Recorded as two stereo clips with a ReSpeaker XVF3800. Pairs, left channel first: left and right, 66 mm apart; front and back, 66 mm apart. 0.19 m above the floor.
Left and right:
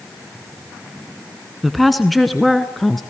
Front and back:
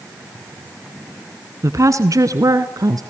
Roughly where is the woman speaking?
Behind.